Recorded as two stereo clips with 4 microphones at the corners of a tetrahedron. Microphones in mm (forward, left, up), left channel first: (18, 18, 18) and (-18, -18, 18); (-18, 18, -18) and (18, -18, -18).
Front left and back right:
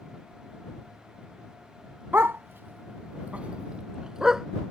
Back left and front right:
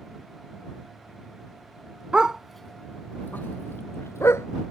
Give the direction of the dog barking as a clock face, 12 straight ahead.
4 o'clock.